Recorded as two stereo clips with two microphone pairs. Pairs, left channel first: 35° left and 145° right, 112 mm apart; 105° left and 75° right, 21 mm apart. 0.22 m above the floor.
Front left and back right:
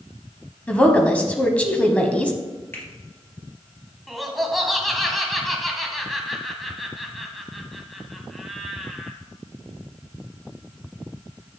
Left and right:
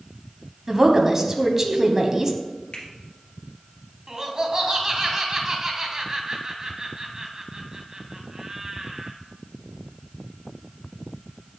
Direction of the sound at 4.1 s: 60° right.